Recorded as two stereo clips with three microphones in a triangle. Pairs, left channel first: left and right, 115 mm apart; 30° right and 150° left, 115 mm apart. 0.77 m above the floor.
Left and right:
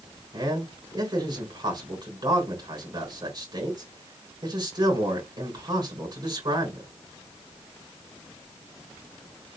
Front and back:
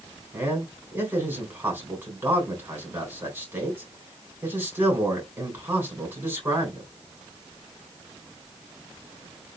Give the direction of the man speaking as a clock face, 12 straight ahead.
5 o'clock.